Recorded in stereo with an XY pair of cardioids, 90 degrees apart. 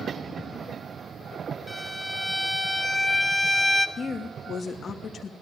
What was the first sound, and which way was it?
A violin, 5° left.